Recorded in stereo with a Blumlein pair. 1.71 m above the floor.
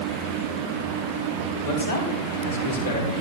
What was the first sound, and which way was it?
A man speaking, 50° left.